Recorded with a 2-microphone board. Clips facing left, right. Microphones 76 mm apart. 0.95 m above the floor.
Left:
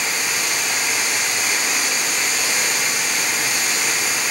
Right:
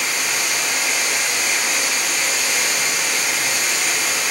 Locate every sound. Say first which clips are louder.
0.0 s running water: even; centre (ahead or behind), 4.5 m